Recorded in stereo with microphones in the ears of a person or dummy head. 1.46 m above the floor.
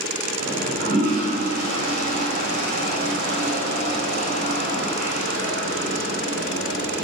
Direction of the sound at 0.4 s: 50° right (ahead or behind).